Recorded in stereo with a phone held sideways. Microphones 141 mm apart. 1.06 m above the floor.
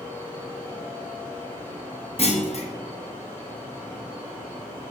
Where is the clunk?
50° left (ahead or behind), 1.1 m.